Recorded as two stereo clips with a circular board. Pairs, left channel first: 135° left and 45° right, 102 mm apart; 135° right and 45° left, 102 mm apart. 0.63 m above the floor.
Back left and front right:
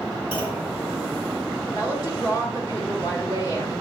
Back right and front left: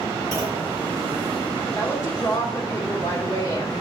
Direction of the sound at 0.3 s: 105° left.